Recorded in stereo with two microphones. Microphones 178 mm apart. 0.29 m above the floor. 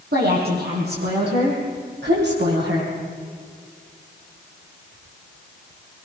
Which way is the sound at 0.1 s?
60° right (ahead or behind).